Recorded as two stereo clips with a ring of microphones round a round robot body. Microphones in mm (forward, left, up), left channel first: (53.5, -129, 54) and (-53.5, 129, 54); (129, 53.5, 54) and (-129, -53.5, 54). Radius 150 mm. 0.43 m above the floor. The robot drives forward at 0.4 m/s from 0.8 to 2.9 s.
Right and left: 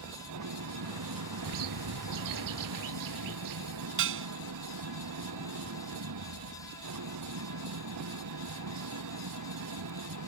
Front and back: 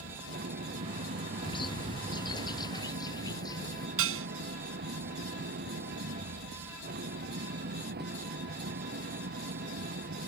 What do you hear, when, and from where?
0.0 s an engine running: 145° left
1.4 s a bird: 95° left; by 3.9 s 100° left
4.0 s dishes clattering: 160° left